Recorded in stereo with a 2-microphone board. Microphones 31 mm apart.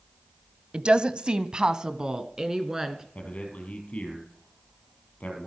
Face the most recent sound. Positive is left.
turn(degrees=50)  # may be behind; listen again after turning